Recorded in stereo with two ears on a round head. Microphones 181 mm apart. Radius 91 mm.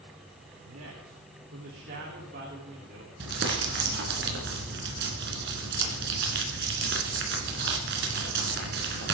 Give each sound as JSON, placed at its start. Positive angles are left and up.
{"t": 0.6, "sound": "a man speaking", "side_deg": -75, "distance_m": 3.5}
{"t": 3.2, "sound": "crumpling", "side_deg": -55, "distance_m": 3.0}